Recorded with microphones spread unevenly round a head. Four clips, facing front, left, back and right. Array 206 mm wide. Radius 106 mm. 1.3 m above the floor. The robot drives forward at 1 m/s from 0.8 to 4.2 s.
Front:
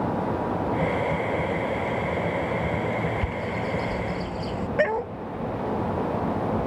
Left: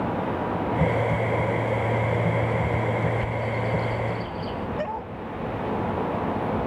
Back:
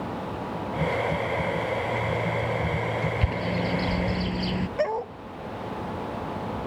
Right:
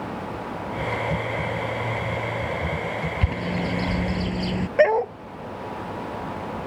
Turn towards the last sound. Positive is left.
turn(degrees=-75)